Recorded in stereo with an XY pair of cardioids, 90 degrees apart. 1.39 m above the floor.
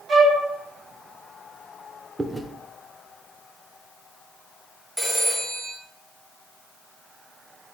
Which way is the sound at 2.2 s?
20° right.